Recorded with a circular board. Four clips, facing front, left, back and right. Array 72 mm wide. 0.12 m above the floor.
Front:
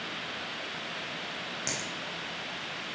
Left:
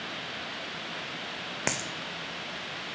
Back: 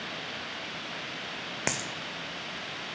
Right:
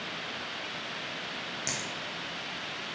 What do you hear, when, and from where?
1.7 s a dropped coin: 135° left, 1.0 m